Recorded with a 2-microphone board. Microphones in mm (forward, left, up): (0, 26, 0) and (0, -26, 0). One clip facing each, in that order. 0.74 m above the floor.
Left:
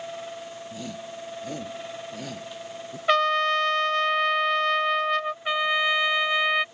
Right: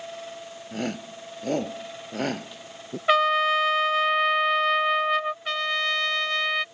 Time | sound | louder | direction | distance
0.7 | a shout | right 8 dB | 55° right (ahead or behind) | ?
3.1 | a trumpet | right 1 dB | 5° right (ahead or behind) | ?
5.5 | a trumpet | left 3 dB | 15° left (ahead or behind) | ?